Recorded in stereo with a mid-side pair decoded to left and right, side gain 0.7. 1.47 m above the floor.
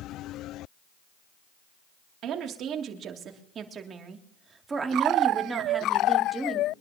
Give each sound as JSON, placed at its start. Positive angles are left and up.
{"t": 2.2, "sound": "a woman speaking", "azimuth_deg": -50, "distance_m": 3.0}